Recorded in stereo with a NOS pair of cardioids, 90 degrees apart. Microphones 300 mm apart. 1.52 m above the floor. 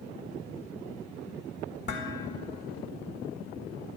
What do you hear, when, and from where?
1.9 s dishes clattering: 40° left, 1.7 m